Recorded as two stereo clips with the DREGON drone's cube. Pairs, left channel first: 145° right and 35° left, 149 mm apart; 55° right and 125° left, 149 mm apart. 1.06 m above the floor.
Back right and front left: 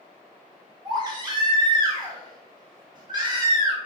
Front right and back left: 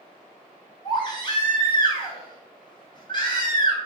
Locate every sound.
0.8 s a baby crying: 10° right, 0.8 m